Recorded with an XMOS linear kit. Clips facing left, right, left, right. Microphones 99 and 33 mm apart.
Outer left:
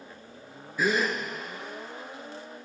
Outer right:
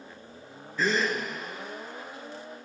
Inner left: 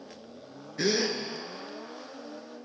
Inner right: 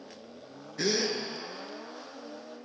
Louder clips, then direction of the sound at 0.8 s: Outer left 1 dB, inner left 2 dB; 10° left (ahead or behind).